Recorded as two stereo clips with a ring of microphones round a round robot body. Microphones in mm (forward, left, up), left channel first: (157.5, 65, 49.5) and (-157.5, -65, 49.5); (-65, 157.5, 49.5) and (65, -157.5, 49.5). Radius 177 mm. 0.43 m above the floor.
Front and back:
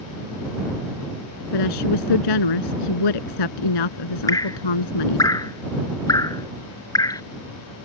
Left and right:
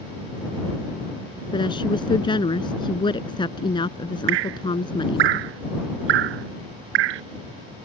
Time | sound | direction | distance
1.5 | a woman speaking | 35° left | ?
4.3 | dripping | 60° right | ?